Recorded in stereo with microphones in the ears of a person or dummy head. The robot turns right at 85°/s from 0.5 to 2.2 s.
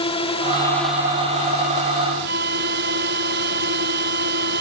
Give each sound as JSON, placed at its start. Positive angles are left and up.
{"t": 0.0, "sound": "a drone", "azimuth_deg": 145}
{"t": 2.3, "sound": "a flute", "side_deg": -55}